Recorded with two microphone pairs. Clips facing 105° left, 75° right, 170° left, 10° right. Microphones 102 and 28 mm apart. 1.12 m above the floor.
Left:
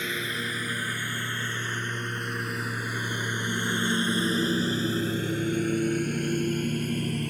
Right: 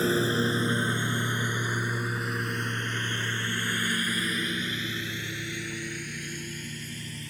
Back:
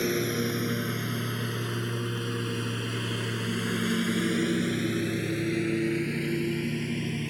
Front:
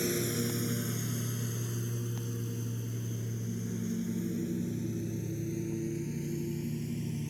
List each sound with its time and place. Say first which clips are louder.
0.0 s a lawn mower: right 8 dB, back 5 dB; 125° right; by 7.3 s 135° left